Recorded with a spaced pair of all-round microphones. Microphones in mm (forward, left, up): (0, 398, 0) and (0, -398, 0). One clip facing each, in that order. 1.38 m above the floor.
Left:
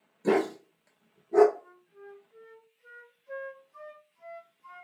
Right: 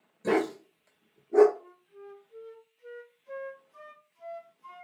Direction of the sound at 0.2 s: 20° right (ahead or behind).